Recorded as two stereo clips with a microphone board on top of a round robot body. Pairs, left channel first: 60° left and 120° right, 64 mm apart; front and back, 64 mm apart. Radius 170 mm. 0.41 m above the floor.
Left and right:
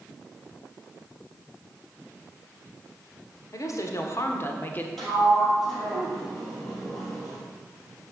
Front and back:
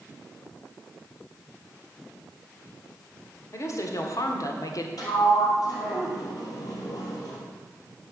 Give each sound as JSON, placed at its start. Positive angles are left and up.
{"t": 3.5, "sound": "a woman speaking", "azimuth_deg": 35, "distance_m": 1.6}
{"t": 5.0, "sound": "a sliding door", "azimuth_deg": -20, "distance_m": 3.5}